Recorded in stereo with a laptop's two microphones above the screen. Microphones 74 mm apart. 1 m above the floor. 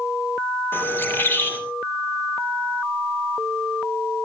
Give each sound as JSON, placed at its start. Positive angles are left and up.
{"t": 0.7, "sound": "a bird", "side_deg": 30, "distance_m": 2.5}